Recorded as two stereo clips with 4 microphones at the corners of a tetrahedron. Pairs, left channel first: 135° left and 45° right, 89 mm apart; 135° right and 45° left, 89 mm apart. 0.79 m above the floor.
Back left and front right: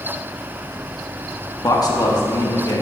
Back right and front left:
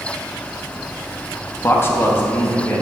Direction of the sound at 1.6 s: 170° left.